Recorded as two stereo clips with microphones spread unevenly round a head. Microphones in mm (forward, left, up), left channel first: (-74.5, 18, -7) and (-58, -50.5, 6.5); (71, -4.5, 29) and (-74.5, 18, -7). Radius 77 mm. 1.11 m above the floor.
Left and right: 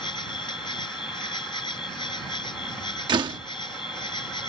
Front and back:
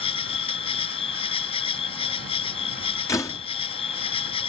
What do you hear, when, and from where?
0.0 s an insect: 45° left
3.1 s a door slam: 80° right